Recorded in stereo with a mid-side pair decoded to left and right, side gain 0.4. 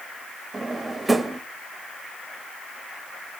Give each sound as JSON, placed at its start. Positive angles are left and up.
{"t": 0.5, "sound": "a drawer", "azimuth_deg": -20, "distance_m": 0.9}